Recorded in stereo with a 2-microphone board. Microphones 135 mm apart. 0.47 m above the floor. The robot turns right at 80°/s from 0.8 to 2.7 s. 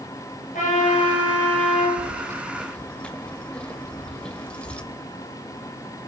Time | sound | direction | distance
0.5 | a trumpet | 100° left | 9 m
2.0 | keys jangling | 50° right | 1.2 m